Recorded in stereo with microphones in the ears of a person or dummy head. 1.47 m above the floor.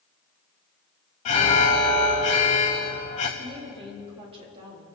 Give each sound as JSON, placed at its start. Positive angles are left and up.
{"t": 1.2, "sound": "an alarm", "side_deg": 35, "distance_m": 1.2}
{"t": 3.4, "sound": "a woman speaking", "side_deg": -35, "distance_m": 3.5}